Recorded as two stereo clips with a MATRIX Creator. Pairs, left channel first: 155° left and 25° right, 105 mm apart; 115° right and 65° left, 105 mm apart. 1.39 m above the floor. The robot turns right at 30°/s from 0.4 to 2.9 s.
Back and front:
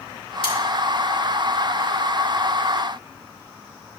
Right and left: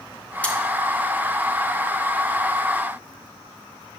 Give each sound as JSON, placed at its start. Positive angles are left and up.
{"t": 0.4, "sound": "cutlery clinking", "azimuth_deg": 170, "distance_m": 1.5}